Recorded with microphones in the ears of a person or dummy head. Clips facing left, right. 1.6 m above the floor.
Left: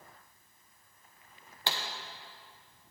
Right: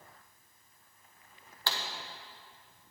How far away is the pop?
About 1.1 m.